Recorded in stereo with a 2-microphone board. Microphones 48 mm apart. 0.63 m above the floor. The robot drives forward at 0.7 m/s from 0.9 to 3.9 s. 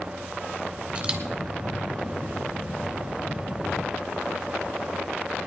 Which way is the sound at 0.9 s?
30° right (ahead or behind).